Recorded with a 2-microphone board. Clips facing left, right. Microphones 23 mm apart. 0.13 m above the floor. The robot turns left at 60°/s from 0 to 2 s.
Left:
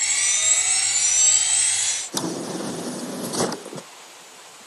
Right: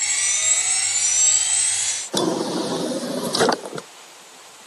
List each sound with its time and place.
2.1 s a drawer: 70° right (ahead or behind)